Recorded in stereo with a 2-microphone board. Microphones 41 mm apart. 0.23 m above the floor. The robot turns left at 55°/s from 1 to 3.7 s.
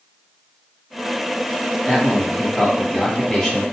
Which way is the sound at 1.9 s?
10° left (ahead or behind).